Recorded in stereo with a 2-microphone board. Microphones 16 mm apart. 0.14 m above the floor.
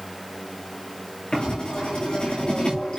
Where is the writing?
75° left (ahead or behind), 8.5 m.